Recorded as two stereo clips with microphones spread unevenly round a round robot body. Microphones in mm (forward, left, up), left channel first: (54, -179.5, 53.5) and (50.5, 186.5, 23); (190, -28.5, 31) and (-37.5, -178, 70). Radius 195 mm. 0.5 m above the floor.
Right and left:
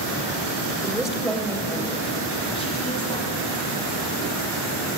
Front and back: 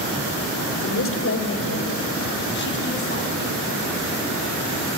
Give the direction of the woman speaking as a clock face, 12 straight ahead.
12 o'clock.